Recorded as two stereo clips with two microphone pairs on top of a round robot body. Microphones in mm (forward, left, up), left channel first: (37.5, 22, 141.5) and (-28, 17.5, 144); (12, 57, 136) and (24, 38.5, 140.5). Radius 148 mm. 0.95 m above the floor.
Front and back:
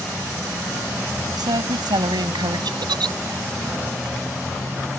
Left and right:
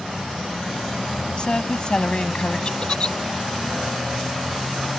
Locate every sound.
1.4 s a woman speaking: straight behind
2.8 s a giggle: straight behind